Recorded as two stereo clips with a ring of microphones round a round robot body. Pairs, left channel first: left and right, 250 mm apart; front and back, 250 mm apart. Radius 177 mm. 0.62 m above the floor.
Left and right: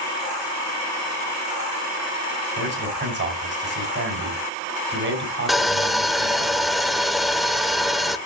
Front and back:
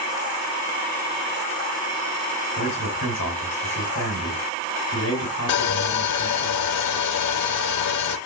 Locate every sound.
2.6 s a man speaking: 50° right, 4.5 m
5.5 s sawing: straight ahead, 1.0 m